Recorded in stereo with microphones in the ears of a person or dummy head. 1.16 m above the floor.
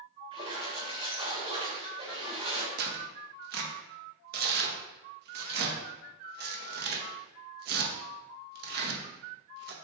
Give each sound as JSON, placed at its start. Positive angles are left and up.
{"t": 0.3, "sound": "a splash", "side_deg": -25, "distance_m": 1.1}
{"t": 2.8, "sound": "tearing paper", "side_deg": -50, "distance_m": 0.7}